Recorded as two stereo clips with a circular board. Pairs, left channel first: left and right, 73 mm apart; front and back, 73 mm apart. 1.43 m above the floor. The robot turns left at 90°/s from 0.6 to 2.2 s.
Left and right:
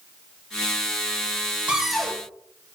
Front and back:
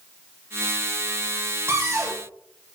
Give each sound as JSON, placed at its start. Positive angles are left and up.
{"t": 1.7, "sound": "a cupboard door", "azimuth_deg": -160, "distance_m": 0.5}